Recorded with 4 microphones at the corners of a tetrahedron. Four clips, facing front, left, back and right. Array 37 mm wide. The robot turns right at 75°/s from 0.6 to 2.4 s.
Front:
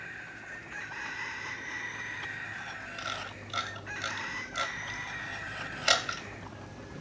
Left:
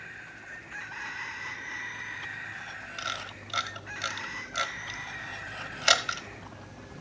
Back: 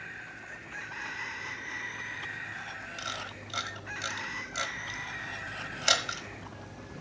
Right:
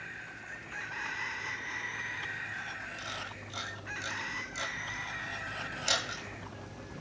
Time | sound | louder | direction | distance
3.0 | a camera shutter | left 4 dB, front 1 dB | 80° left | 1.1 m